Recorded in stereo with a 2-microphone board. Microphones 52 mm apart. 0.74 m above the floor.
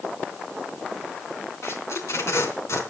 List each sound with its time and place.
1.6 s tape being pulled: 70° left (ahead or behind), 3.5 m